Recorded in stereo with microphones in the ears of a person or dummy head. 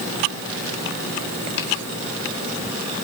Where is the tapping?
70° left (ahead or behind), 5 m.